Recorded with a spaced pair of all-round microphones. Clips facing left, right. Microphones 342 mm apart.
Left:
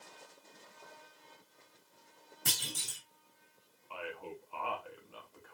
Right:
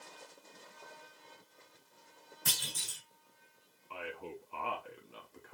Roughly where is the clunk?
Left.